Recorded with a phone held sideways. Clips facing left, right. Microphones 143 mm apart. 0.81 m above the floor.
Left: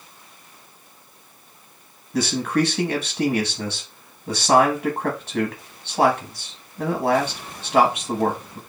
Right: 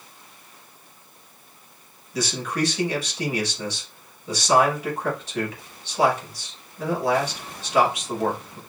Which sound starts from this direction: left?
A man speaking, at 2.1 s.